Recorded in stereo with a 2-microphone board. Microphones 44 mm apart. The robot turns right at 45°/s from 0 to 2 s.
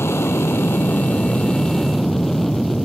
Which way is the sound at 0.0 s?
85° left.